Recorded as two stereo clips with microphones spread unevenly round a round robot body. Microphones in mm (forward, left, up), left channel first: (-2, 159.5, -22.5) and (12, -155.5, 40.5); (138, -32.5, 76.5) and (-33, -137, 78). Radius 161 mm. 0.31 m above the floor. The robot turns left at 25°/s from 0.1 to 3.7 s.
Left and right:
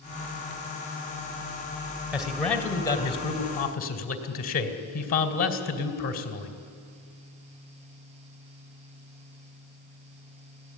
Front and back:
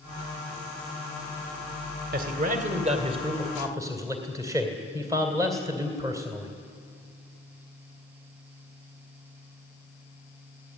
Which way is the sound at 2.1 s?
Straight behind.